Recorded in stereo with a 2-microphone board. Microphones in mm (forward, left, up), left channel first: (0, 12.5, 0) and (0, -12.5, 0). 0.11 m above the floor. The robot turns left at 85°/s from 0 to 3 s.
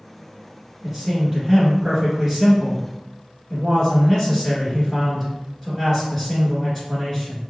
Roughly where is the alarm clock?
No alarm clock in this recording.